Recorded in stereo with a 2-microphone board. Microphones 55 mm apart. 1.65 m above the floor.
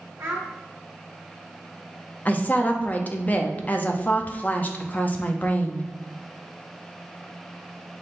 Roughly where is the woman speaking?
Left.